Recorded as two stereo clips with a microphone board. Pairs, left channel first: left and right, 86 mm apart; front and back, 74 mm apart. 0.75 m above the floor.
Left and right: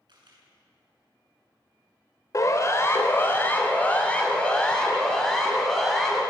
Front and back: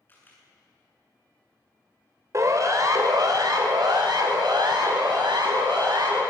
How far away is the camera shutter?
About 9 m.